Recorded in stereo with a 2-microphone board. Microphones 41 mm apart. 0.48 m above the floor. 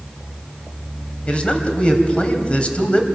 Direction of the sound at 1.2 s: 30° left (ahead or behind).